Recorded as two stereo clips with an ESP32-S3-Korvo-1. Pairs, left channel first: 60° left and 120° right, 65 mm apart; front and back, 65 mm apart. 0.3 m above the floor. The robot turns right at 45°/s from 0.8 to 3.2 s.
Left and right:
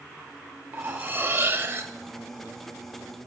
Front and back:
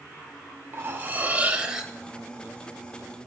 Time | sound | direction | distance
0.7 | cutlery clinking | 155° right | 0.6 m